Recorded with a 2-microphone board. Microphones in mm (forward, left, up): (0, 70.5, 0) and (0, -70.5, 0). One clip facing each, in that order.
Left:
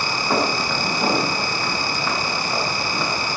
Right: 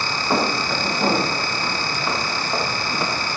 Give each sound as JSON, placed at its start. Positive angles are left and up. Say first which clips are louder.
{"t": 0.3, "sound": "footsteps", "louder": "even", "side_deg": 0, "distance_m": 7.0}